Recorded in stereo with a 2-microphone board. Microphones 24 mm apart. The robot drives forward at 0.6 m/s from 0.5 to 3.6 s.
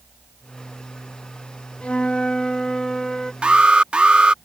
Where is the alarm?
45° right (ahead or behind).